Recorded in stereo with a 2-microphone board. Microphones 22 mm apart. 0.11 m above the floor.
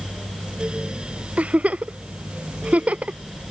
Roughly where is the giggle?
Right.